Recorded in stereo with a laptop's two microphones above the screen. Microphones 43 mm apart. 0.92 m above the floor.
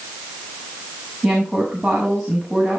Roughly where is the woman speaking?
Centre.